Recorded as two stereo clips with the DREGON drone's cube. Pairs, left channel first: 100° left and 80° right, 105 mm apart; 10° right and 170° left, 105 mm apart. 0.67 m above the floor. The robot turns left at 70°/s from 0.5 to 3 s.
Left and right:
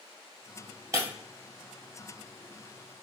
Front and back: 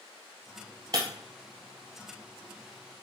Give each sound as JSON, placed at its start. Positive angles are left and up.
{"t": 0.9, "sound": "breaking glass", "azimuth_deg": -135, "distance_m": 1.4}